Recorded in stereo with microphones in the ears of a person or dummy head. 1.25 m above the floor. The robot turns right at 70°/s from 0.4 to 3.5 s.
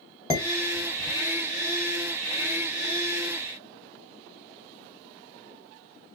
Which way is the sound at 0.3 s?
15° left (ahead or behind).